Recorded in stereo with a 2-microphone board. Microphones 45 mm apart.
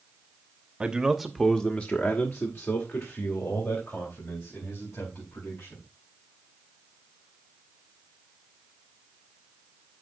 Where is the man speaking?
20° right (ahead or behind), 1.1 m; by 5.8 s 65° left (ahead or behind), 5 m.